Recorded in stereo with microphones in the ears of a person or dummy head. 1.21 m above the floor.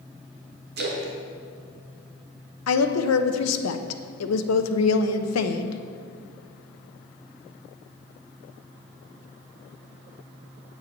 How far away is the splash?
About 1.4 m.